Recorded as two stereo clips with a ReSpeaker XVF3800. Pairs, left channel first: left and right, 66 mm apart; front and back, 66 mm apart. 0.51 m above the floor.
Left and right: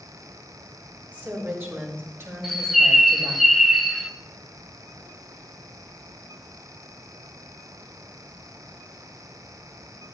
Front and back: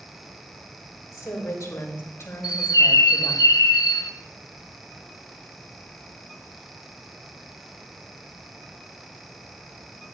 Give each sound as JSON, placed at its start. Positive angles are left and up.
{"t": 1.1, "sound": "a woman speaking", "azimuth_deg": -30, "distance_m": 2.5}
{"t": 2.4, "sound": "a bird", "azimuth_deg": 0, "distance_m": 0.6}